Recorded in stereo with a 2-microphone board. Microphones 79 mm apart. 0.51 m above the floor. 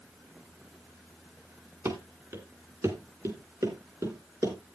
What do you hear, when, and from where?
1.9 s running footsteps: 40° right (ahead or behind), 2.5 m; by 4.8 s 45° right (ahead or behind), 5.5 m